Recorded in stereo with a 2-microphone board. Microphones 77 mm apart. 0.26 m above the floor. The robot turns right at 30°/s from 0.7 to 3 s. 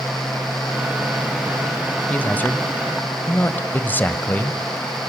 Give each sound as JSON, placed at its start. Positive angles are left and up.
{"t": 2.1, "sound": "a man speaking", "side_deg": 20, "distance_m": 1.1}